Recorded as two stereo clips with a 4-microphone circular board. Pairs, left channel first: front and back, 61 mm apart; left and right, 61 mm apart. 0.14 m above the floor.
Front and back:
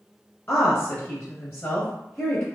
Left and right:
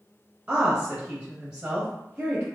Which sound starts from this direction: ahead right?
A woman speaking, at 0.5 s.